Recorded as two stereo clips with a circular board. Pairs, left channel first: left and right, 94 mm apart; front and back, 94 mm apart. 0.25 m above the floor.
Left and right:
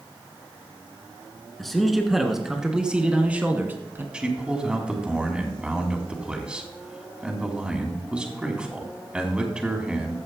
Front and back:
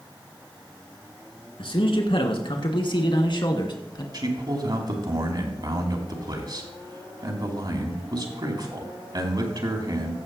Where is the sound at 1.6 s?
Straight ahead, 3 m; by 4.0 s 30° right, 2 m.